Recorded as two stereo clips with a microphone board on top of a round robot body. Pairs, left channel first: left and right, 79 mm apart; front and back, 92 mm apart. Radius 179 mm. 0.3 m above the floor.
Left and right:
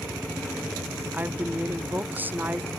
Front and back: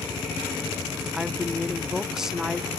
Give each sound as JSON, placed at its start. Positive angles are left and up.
{"t": 1.1, "sound": "a woman speaking", "azimuth_deg": -105, "distance_m": 0.9}